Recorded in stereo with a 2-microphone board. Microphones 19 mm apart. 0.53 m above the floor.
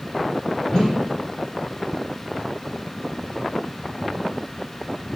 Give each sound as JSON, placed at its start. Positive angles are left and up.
{"t": 0.7, "sound": "a whoosh", "side_deg": 35, "distance_m": 6.5}